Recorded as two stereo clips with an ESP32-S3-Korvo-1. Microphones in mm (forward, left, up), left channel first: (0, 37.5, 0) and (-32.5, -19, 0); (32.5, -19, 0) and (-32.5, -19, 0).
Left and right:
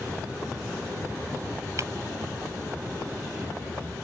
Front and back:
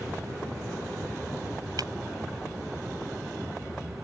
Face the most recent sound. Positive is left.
turn(degrees=-160)